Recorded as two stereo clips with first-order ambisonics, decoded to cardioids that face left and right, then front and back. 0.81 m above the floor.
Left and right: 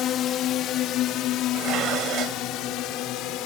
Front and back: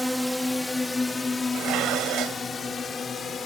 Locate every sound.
0.0 s a drone: 85° left; by 3.5 s 65° left
1.5 s dishes clattering: 140° right